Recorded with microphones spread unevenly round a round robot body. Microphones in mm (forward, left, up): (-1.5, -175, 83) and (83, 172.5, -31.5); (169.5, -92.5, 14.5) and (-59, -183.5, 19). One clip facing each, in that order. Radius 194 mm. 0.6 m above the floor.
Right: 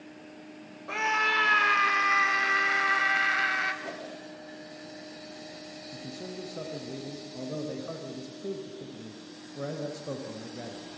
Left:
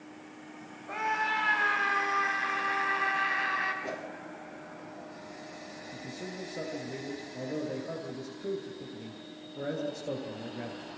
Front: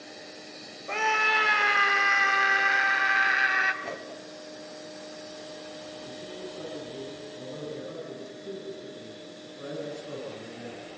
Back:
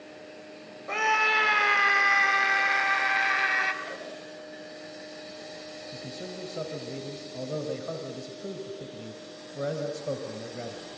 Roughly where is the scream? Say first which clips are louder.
Right 3 dB, even; right.